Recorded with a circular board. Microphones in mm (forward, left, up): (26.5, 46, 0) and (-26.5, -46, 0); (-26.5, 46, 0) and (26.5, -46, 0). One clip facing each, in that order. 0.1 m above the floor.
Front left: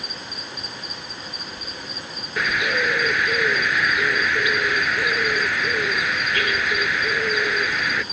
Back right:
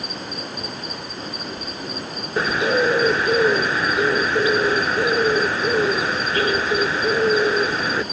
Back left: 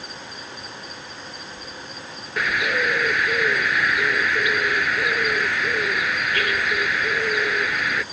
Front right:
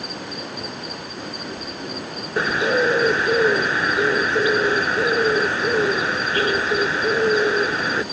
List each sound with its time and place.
0.0 s an insect: 80° right
2.4 s a bird: 90° right